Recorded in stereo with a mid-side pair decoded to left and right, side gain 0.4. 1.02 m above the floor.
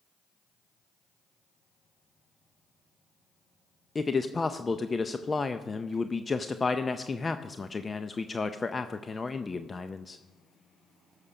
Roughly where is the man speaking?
Ahead left.